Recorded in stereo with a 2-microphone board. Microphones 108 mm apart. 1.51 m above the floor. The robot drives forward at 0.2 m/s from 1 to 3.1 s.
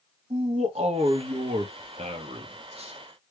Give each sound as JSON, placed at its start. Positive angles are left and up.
{"t": 0.3, "sound": "a man speaking", "side_deg": -75, "distance_m": 0.8}